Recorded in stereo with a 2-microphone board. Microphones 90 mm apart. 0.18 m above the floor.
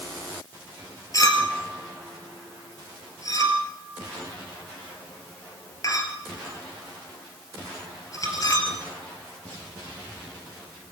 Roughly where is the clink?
Left.